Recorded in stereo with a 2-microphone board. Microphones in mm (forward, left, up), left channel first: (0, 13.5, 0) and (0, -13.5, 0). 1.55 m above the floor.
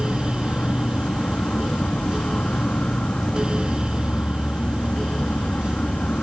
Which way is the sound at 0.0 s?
50° left (ahead or behind).